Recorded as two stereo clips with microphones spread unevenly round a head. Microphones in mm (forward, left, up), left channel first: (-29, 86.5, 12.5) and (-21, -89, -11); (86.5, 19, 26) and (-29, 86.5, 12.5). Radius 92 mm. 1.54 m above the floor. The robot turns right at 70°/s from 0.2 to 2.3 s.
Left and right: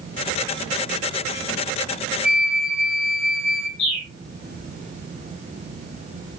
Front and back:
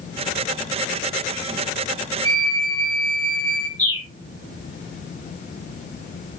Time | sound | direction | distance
2.2 | a flute | 5° left | 1.1 m
3.8 | a bird | 90° left | 7 m